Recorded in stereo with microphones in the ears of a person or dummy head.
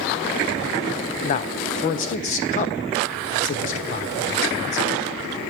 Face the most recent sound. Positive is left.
turn(degrees=35)  # may be behind; listen again after turning